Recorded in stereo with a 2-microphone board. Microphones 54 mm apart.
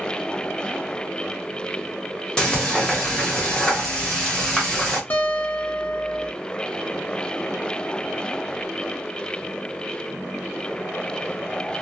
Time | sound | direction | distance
2.4 | frying | 15° left (ahead or behind) | 1.1 m
5.1 | a guitar | 40° left (ahead or behind) | 0.6 m